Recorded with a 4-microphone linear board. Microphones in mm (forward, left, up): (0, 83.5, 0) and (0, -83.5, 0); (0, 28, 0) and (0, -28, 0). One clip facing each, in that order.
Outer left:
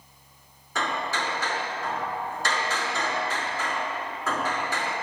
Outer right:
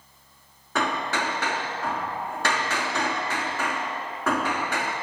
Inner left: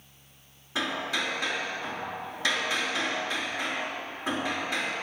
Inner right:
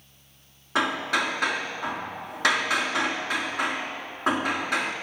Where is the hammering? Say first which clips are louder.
Outer right 3 dB, inner right 5 dB; 70° right (ahead or behind), 3 m.